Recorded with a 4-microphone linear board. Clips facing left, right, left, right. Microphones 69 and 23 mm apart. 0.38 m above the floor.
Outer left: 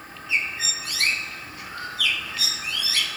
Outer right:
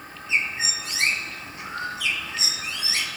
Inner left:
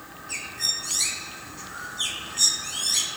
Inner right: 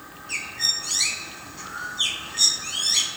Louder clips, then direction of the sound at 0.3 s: Outer right 1 dB, inner right 3 dB; 25° right (ahead or behind).